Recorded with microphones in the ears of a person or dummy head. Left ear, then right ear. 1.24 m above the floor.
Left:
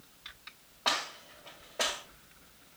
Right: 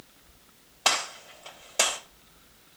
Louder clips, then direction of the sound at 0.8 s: Right 5 dB; 65° right (ahead or behind).